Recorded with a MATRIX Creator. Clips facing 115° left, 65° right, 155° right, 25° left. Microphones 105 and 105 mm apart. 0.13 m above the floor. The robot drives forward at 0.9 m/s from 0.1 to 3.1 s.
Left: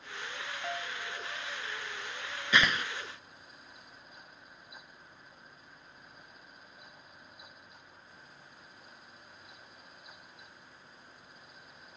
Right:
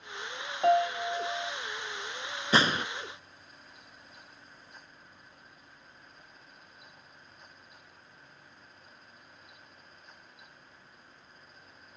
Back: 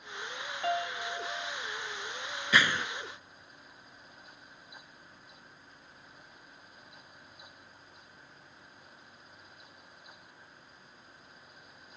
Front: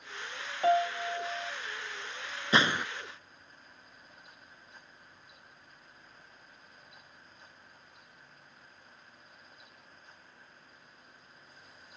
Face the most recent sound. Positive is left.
turn(degrees=-90)